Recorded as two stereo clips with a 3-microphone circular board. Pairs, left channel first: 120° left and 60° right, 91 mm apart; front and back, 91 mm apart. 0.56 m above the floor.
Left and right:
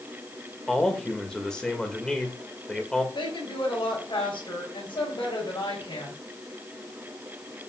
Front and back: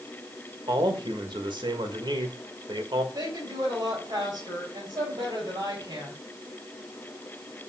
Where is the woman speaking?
135° left, 4 m.